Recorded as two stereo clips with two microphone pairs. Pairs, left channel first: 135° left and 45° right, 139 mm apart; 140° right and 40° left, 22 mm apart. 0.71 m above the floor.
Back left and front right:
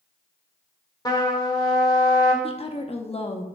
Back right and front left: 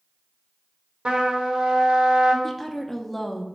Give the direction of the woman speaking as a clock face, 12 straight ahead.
7 o'clock.